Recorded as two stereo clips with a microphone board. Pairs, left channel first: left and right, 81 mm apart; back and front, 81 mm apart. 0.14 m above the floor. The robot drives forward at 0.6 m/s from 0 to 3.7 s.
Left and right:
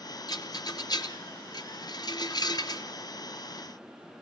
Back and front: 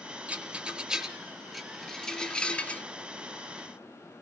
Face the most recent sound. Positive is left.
turn(degrees=120)